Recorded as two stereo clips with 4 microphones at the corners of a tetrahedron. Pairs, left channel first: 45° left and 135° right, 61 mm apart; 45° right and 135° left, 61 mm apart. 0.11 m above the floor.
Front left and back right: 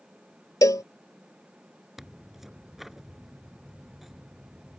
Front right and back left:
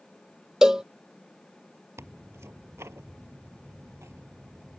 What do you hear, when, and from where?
0.6 s a cowbell: 55° left
2.0 s tearing paper: 140° left